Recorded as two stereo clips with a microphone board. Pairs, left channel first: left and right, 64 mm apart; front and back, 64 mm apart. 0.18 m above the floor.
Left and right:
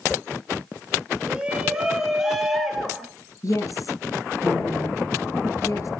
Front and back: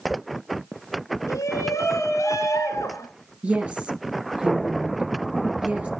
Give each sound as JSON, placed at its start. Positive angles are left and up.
{"t": 1.3, "sound": "a shout", "azimuth_deg": -15, "distance_m": 3.0}
{"t": 3.4, "sound": "a woman speaking", "azimuth_deg": 110, "distance_m": 2.5}